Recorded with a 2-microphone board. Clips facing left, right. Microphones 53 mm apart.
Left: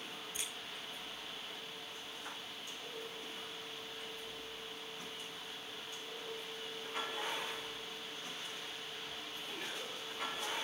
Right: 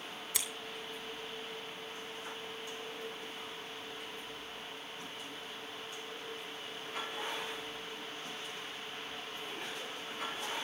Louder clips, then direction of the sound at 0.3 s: Right 6 dB; 75° right (ahead or behind).